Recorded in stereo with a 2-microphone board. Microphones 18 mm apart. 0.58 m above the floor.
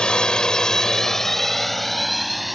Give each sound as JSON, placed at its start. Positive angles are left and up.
{"t": 0.0, "sound": "a drone", "side_deg": 60}